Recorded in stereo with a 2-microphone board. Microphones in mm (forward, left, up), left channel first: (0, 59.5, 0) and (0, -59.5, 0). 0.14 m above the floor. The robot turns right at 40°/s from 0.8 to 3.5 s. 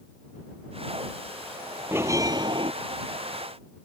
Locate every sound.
1.9 s a bell: 160° right; by 2.7 s 130° right